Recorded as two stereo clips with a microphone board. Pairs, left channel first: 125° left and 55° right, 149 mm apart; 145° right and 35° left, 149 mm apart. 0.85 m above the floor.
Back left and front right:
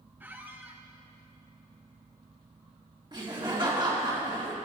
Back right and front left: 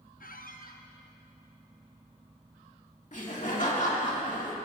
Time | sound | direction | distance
0.2 | a squeak | 135° right | 0.6 m
3.1 | laughter | 115° right | 1.9 m